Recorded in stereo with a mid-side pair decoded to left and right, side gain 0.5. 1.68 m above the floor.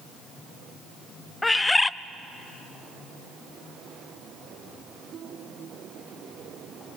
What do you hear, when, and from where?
1.4 s a bird: 15° left, 0.6 m